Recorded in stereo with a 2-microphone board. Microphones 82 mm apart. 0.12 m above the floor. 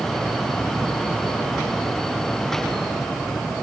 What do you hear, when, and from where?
Only background noise.